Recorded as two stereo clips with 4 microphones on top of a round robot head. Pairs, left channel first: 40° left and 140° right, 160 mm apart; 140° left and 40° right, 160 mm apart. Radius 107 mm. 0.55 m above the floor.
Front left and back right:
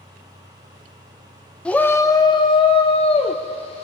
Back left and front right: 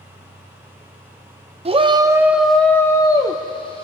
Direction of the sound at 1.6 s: 40° right.